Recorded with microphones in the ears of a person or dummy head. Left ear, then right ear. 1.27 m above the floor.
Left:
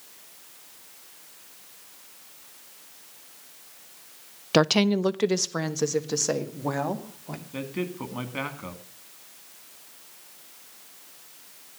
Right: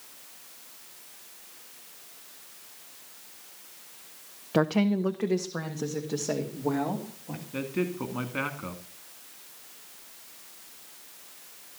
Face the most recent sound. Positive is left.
turn(degrees=10)  # may be behind; listen again after turning